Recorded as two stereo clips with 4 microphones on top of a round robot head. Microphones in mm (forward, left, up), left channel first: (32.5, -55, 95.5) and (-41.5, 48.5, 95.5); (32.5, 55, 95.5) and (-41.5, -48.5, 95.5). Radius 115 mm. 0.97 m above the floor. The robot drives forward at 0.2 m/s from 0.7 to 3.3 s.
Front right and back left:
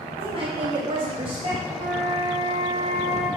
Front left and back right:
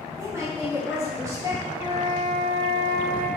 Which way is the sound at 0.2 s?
165° left.